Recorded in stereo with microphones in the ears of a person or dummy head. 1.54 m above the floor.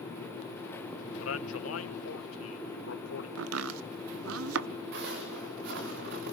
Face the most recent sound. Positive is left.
turn(degrees=-70)  # may be behind; listen again after turning